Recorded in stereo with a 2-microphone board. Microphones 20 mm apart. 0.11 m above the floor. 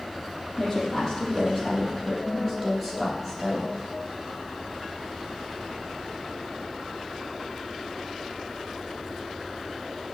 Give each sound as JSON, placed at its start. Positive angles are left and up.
{"t": 0.6, "sound": "a woman speaking", "side_deg": 20, "distance_m": 4.0}